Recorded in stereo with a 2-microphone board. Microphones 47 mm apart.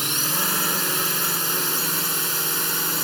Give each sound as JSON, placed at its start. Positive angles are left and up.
{"t": 0.0, "sound": "a drone", "side_deg": 0}